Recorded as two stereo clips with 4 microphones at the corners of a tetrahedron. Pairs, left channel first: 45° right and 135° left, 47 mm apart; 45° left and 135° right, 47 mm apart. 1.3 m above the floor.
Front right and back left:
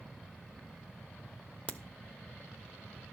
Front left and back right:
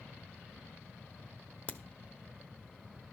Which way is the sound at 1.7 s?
Straight ahead.